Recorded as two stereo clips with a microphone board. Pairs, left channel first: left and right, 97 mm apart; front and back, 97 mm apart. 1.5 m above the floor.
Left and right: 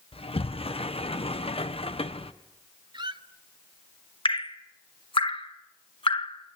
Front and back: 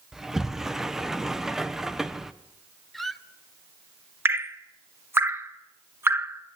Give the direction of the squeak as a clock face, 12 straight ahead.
3 o'clock.